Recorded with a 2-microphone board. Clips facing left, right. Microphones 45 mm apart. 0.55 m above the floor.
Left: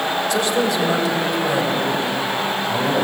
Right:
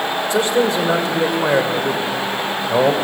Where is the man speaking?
25° right (ahead or behind), 2.5 m; by 3.0 s 65° right (ahead or behind), 3 m.